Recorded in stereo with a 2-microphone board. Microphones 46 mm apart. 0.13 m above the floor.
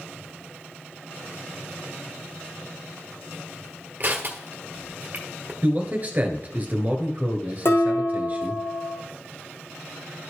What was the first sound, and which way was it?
Crushing, 40° right (ahead or behind).